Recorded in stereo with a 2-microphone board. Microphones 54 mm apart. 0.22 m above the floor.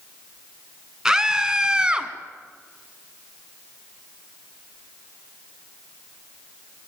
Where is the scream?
10° right (ahead or behind), 2 m; by 2.1 s 20° right (ahead or behind), 1.8 m.